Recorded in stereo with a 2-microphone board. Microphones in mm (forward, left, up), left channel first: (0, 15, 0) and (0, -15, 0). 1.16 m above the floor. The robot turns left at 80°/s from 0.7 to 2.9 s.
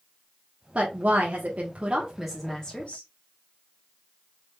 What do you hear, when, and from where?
0.8 s a woman speaking: 55° right, 1.2 m; by 3.0 s 135° left, 1.2 m